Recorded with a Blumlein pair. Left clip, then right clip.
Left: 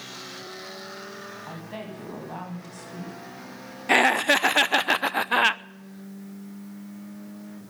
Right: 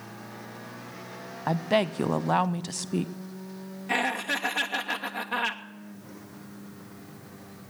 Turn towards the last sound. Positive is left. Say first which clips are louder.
# left 8 dB
turn(degrees=30)